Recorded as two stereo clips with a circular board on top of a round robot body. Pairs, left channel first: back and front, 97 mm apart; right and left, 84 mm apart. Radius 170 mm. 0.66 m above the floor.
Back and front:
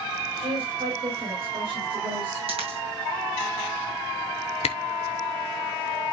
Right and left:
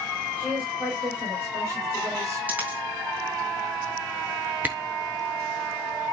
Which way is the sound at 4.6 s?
160° left.